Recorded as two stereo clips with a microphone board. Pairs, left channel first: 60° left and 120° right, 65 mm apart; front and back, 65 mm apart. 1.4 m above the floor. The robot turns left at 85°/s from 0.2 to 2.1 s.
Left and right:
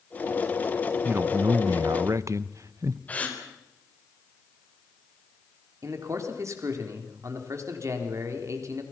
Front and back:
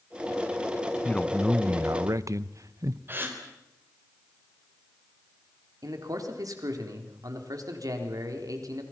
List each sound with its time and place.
1.1 s a man speaking: 65° right, 0.9 m; by 3.0 s 155° right, 0.9 m
3.1 s a gasp: 125° left, 3.5 m
5.8 s a man speaking: 160° right, 3.5 m